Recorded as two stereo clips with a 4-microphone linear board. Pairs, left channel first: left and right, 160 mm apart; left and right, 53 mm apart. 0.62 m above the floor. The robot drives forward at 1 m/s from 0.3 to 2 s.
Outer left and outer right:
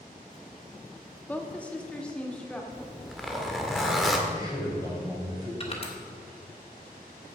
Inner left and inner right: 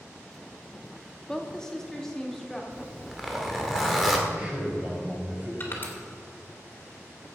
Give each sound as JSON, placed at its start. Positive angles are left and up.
{"t": 1.3, "sound": "a woman speaking", "side_deg": 10, "distance_m": 1.0}
{"t": 2.7, "sound": "a zipper", "side_deg": 0, "distance_m": 1.6}
{"t": 4.3, "sound": "a man speaking", "side_deg": -25, "distance_m": 4.0}
{"t": 5.6, "sound": "crushing", "side_deg": 40, "distance_m": 2.5}